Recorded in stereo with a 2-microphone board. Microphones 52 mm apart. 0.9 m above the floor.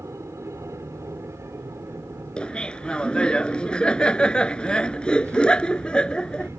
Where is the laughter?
20° left (ahead or behind).